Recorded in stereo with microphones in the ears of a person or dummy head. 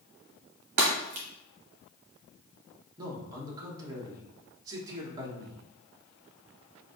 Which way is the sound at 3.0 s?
20° right (ahead or behind).